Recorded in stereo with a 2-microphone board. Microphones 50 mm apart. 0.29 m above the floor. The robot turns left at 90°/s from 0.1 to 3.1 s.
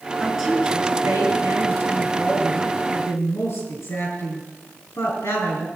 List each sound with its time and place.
0.2 s a woman speaking: 10° left, 5 m; by 5.7 s 105° left, 5 m